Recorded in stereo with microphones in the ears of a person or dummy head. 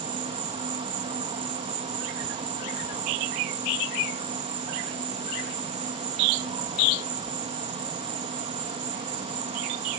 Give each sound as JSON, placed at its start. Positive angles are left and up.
{"t": 0.0, "sound": "an insect", "side_deg": -25}